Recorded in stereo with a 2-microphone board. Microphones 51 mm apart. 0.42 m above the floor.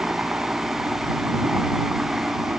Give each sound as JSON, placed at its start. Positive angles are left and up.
{"t": 0.0, "sound": "a helicopter", "side_deg": -30}